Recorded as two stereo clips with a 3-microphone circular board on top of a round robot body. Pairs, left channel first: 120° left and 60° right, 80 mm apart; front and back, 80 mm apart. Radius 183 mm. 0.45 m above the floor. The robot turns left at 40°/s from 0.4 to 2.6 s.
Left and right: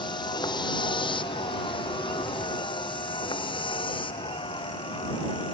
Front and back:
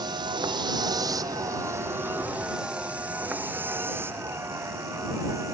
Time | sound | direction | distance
0.0 | a vehicle | 145° left | ?